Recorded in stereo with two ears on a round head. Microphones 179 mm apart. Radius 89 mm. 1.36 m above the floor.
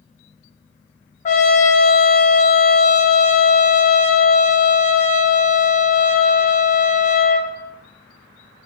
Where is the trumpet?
35° left (ahead or behind), 0.6 m.